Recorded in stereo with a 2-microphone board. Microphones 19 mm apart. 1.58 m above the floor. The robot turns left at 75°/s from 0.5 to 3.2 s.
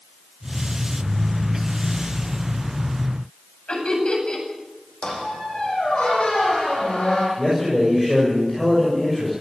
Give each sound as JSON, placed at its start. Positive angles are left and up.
{"t": 3.7, "sound": "laughter", "side_deg": 60, "distance_m": 9.5}
{"t": 5.0, "sound": "a squeak", "side_deg": 75, "distance_m": 8.5}
{"t": 7.4, "sound": "a man speaking", "side_deg": 15, "distance_m": 6.0}